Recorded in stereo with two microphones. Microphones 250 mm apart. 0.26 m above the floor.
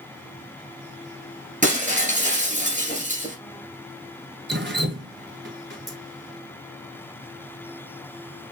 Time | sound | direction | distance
1.6 | breaking glass | 30° right (ahead or behind) | 2 m
4.5 | dripping | 45° right (ahead or behind) | 0.7 m